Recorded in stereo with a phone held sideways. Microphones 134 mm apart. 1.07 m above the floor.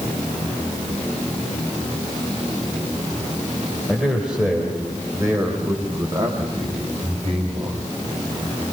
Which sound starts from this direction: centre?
A man speaking, at 3.9 s.